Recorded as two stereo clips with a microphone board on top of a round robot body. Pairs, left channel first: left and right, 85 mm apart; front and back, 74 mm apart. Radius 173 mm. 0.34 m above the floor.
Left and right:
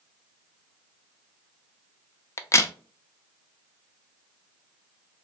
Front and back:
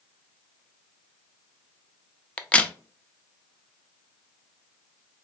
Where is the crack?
65° left, 0.6 m.